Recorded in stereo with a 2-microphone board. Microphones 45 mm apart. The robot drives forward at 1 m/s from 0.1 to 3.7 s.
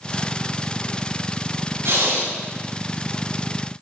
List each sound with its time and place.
1.9 s breathing: 80° right, 2.5 m